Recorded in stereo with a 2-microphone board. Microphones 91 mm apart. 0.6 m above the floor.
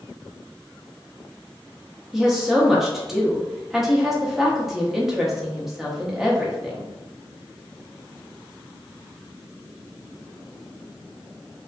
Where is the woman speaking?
5° right (ahead or behind), 0.5 m.